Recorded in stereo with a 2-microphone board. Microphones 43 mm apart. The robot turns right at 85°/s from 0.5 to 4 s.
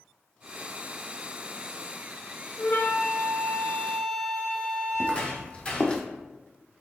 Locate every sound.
2.6 s a flute: 35° left, 1.0 m; by 5.2 s 155° left, 1.0 m
5.0 s footsteps: 30° left (ahead or behind), 1.9 m; by 6.0 s 25° left (ahead or behind), 1.5 m